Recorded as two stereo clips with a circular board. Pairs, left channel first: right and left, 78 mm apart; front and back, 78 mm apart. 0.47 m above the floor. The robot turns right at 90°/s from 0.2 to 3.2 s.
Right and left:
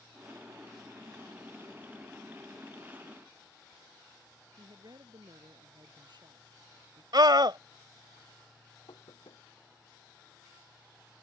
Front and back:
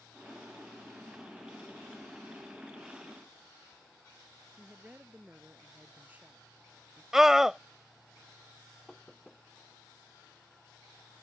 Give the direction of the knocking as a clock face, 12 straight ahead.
3 o'clock.